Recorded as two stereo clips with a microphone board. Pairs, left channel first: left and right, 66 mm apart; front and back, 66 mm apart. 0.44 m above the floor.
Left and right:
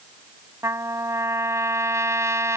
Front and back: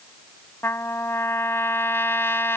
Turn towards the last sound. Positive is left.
turn(degrees=-50)